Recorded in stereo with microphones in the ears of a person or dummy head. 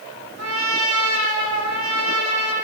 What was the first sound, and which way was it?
A trumpet, 85° right.